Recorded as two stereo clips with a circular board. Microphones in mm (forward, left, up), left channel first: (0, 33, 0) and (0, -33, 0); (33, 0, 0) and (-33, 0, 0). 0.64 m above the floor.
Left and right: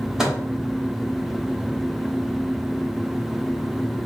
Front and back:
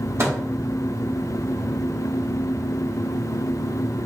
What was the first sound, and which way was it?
A microwave, 170° right.